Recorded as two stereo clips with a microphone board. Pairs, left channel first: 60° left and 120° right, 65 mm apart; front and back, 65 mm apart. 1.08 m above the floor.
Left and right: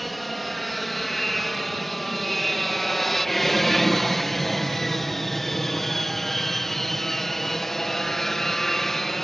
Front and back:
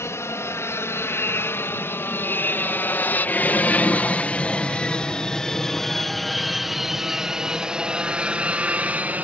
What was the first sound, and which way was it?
An aircraft, 25° right.